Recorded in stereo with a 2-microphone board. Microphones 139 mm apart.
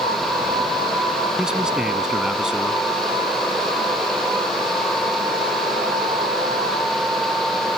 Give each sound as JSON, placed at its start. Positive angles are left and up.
{"t": 1.4, "sound": "a man speaking", "side_deg": -5}